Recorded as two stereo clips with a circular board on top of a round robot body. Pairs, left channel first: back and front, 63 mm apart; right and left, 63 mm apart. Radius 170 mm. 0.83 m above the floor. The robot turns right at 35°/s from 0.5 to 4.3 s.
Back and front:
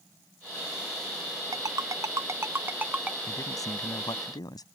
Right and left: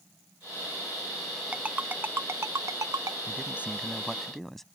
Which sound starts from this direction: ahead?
A ringtone, at 1.5 s.